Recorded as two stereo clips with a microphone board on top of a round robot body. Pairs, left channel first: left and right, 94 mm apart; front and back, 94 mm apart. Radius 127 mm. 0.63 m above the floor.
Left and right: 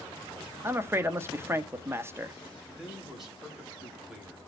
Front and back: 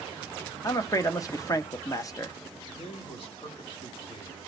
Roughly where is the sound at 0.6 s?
Ahead right.